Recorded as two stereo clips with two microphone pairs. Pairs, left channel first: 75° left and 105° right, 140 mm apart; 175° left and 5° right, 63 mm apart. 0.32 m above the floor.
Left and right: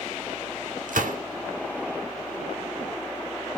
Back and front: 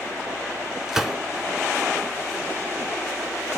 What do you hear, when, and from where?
0.9 s a gunshot: 90° right, 0.6 m